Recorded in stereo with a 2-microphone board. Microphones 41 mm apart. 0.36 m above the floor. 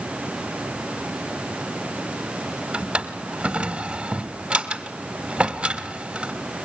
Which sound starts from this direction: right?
A drawer, at 2.7 s.